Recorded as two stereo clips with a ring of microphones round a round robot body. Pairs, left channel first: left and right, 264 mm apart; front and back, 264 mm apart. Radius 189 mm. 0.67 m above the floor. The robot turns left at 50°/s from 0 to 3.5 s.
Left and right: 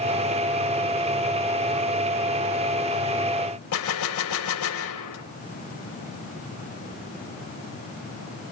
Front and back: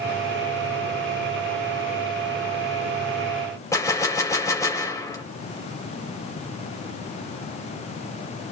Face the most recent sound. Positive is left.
turn(degrees=80)